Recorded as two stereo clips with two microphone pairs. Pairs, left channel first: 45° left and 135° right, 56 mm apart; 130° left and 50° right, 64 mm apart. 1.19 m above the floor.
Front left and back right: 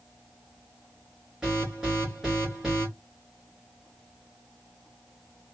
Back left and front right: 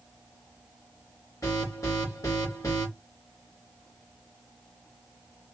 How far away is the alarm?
About 2.5 m.